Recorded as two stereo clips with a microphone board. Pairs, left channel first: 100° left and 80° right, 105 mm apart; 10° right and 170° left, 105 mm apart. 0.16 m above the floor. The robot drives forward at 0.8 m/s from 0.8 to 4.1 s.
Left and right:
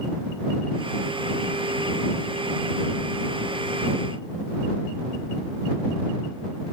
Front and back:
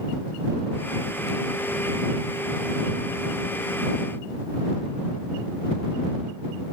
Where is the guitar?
I don't hear a guitar.